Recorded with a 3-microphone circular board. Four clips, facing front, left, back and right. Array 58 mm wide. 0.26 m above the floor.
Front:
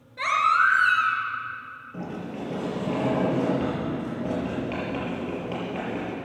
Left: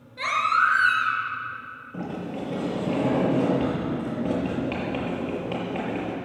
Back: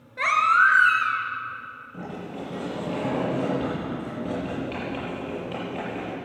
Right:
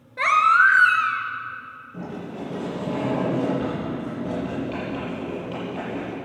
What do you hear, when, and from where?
0.2 s a baby crying: 120° right, 1.5 m
1.9 s a sliding door: 70° left, 6 m